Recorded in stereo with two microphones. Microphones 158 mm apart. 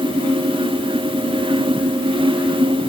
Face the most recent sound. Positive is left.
No sound to turn to.